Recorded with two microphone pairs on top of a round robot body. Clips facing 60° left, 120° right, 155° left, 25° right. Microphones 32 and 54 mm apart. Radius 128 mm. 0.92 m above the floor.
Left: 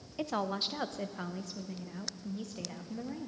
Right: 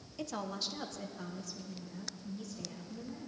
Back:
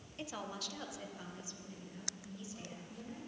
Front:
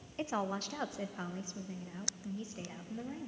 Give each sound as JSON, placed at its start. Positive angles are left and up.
{"t": 0.2, "sound": "a woman speaking", "azimuth_deg": 0, "distance_m": 0.9}